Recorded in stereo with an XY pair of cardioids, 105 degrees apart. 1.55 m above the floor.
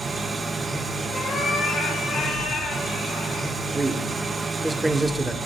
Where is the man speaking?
15° right, 0.8 m.